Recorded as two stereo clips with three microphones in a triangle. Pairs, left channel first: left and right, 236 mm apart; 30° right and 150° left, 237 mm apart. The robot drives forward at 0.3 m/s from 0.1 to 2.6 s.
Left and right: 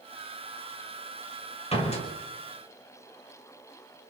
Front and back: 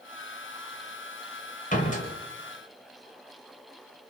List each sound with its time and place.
1.7 s a door slam: 25° left, 5 m